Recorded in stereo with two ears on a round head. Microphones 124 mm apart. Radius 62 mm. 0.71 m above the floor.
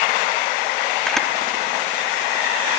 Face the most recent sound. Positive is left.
turn(degrees=5)  # may be behind; listen again after turning